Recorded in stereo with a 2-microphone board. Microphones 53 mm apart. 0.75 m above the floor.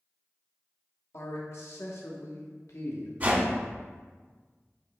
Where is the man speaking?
65° left (ahead or behind), 1.2 m.